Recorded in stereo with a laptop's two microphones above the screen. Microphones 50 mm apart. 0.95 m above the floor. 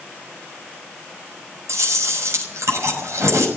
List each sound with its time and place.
1.7 s chewing: 80° right, 6 m